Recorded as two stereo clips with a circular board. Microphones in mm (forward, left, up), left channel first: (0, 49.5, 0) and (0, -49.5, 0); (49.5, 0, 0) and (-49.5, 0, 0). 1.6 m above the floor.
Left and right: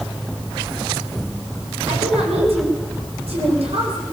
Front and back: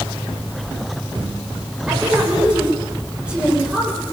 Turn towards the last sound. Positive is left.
turn(degrees=-100)